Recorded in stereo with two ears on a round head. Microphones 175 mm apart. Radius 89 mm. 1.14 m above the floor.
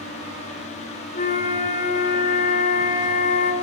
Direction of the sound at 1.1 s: 45° left (ahead or behind).